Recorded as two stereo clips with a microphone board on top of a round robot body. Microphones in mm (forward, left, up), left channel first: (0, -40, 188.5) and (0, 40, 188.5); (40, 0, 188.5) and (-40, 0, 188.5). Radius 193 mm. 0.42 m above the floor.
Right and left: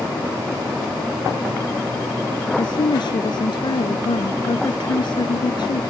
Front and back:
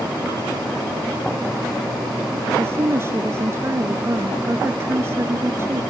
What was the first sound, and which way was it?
A woman speaking, 120° right.